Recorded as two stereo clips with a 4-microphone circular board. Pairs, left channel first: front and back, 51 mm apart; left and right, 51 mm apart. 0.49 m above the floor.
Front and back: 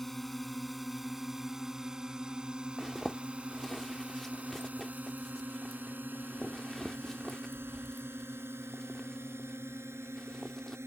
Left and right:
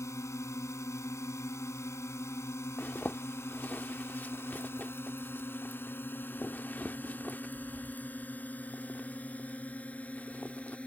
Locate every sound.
0.0 s a drone: 90° left; by 10.9 s 155° left
2.8 s a zipper: 80° left